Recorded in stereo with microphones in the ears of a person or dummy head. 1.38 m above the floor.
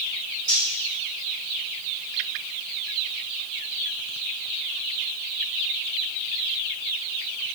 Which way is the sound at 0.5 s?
45° right (ahead or behind).